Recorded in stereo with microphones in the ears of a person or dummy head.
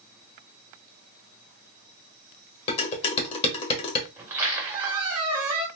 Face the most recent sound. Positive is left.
turn(degrees=-20)  # may be behind; listen again after turning